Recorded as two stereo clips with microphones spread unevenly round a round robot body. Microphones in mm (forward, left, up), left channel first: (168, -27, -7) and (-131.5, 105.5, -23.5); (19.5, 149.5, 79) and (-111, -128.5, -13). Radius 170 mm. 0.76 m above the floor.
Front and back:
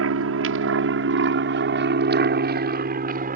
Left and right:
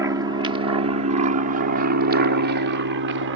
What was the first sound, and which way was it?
An aircraft, 170° right.